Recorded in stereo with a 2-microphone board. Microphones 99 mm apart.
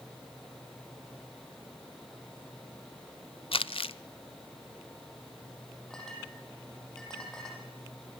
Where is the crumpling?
75° left (ahead or behind), 0.6 m.